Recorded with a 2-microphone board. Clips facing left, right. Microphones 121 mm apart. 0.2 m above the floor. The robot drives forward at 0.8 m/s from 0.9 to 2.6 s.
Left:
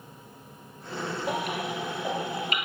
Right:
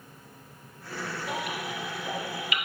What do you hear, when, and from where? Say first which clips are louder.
1.3 s a baby crying: left 4 dB; 60° left (ahead or behind), 2.5 m; by 2.7 s 45° left (ahead or behind), 3 m